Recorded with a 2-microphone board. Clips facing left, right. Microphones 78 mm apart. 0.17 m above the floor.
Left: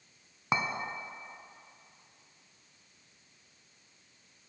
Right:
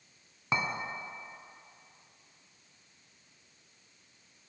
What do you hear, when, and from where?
0.5 s a clink: 20° left (ahead or behind), 0.7 m